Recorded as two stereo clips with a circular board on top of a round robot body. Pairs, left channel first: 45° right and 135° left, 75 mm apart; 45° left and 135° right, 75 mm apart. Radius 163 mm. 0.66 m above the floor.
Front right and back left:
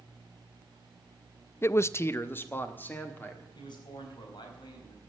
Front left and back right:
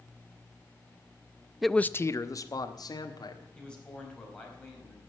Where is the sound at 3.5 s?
35° right, 4.5 m.